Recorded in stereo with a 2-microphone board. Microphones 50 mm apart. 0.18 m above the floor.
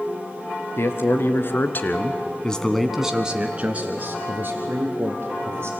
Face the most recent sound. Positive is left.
turn(degrees=-60)  # may be behind; listen again after turning